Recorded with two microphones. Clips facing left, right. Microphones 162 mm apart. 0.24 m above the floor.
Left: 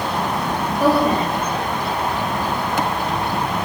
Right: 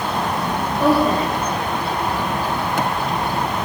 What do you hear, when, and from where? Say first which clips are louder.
0.8 s a woman speaking: even; 10° left (ahead or behind), 7 m